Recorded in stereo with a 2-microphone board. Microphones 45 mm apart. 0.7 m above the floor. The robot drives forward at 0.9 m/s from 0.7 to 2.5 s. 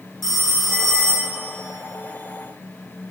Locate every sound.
0.2 s a phone ringing: 10° left (ahead or behind), 1.0 m; by 1.4 s 20° left (ahead or behind), 0.5 m